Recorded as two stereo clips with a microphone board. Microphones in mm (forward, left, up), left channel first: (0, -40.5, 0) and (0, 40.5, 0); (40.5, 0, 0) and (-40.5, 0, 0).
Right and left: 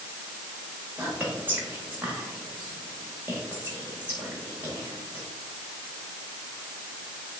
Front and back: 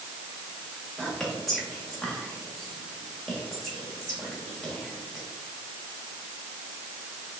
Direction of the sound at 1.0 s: 85° left.